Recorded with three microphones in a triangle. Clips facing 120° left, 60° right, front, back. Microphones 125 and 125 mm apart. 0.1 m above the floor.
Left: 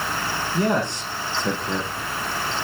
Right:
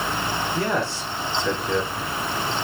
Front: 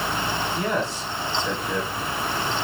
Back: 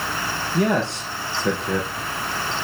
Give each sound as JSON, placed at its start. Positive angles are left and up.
{"t": 0.5, "sound": "a man speaking", "azimuth_deg": -170, "distance_m": 4.5}